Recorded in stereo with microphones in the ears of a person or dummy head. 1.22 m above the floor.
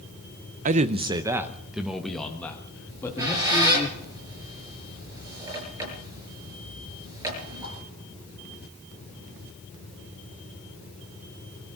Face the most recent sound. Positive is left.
turn(degrees=-15)  # may be behind; listen again after turning